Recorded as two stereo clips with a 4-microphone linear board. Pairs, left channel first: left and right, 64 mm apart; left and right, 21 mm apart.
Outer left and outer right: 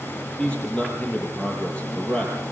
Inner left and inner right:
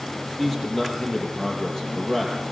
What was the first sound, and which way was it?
A man speaking, 20° left (ahead or behind).